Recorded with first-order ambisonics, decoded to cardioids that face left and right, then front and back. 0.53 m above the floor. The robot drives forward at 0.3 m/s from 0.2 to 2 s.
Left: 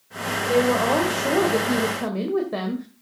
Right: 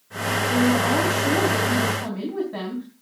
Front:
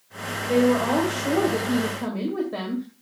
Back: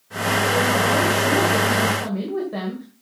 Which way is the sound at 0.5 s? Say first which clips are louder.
Left 3 dB, front 2 dB; 75° left.